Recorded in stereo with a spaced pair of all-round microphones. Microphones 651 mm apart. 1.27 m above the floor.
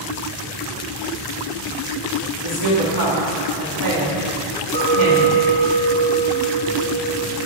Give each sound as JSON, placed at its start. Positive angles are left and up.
{"t": 2.4, "sound": "a woman speaking", "side_deg": -45, "distance_m": 2.0}
{"t": 4.7, "sound": "a clink", "side_deg": -45, "distance_m": 1.0}